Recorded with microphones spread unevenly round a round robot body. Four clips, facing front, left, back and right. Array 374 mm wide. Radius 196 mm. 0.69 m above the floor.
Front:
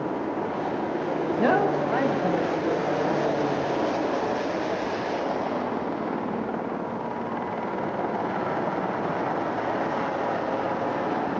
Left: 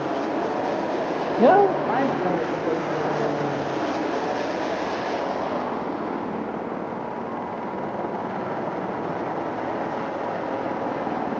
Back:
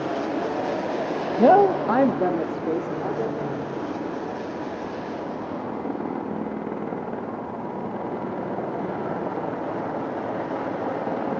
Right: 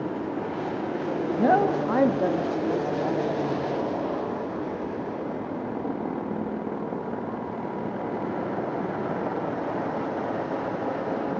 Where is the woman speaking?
130° left, 0.7 m; by 3.7 s 155° right, 2.5 m.